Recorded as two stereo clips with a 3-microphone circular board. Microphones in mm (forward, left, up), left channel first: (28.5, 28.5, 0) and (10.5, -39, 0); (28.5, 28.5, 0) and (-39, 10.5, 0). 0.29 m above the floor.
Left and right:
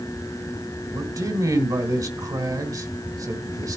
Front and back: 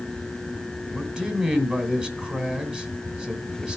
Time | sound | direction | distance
0.9 | a man speaking | 90° right | 2 m